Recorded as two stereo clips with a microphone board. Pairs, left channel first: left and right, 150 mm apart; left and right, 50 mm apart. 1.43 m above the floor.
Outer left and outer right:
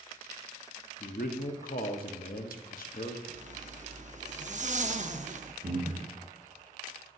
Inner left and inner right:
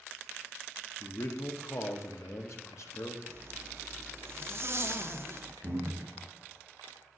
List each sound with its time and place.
1.0 s a man speaking: 65° left (ahead or behind), 0.8 m
3.3 s a zipper: 50° right (ahead or behind), 0.5 m
5.6 s breathing: 50° right (ahead or behind), 0.8 m